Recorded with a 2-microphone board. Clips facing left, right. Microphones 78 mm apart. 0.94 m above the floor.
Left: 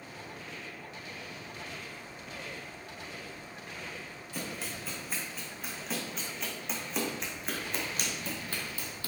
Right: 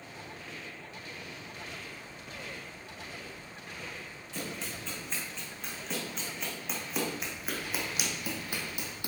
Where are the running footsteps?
10° left (ahead or behind), 3.5 m; by 9.1 s 20° right (ahead or behind), 1.7 m.